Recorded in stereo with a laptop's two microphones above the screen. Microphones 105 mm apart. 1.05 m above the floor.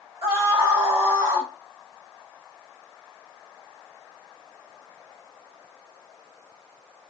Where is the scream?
25° right (ahead or behind), 2.5 m; by 1.5 s 30° right (ahead or behind), 3 m.